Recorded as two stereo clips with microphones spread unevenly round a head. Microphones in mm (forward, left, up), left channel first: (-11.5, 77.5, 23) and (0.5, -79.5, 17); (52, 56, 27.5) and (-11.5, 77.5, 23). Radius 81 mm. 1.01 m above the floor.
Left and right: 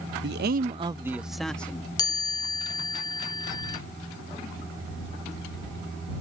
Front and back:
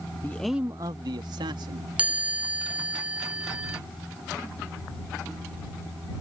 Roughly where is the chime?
Behind left.